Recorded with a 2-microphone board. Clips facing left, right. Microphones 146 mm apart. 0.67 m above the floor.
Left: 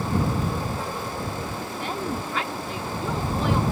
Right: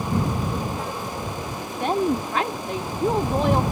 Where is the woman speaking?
55° right (ahead or behind).